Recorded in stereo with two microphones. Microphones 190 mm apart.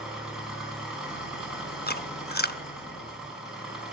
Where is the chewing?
55° left (ahead or behind), 0.5 m.